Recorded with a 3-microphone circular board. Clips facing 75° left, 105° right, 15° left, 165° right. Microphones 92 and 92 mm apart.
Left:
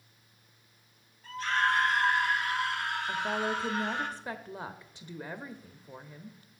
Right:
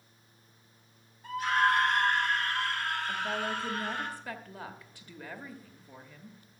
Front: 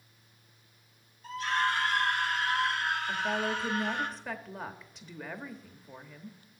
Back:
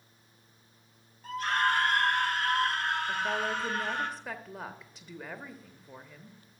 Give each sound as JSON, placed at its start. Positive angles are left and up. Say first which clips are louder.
{"t": 1.2, "sound": "a scream", "louder": "right 2 dB, back 1 dB", "azimuth_deg": -175, "distance_m": 1.8}
{"t": 3.1, "sound": "a woman speaking", "louder": "left 2 dB, even", "azimuth_deg": 105, "distance_m": 0.9}